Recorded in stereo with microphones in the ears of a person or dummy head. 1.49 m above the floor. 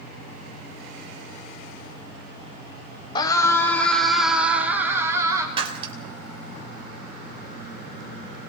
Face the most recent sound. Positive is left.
turn(degrees=-35)  # may be behind; listen again after turning